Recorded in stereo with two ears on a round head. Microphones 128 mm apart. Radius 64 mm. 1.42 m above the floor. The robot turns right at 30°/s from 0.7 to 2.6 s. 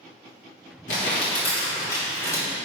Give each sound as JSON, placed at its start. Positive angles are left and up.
{"t": 0.9, "sound": "crumpling", "side_deg": 65, "distance_m": 2.5}